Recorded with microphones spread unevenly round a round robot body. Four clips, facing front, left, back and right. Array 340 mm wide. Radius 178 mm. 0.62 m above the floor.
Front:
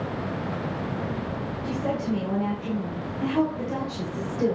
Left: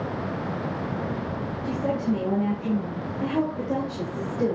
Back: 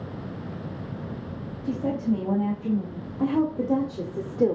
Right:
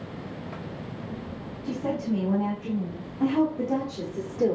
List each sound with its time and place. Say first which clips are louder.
1.6 s a woman speaking: left 2 dB, back 2 dB; 165° left, 3 m; by 4.6 s 175° right, 1.6 m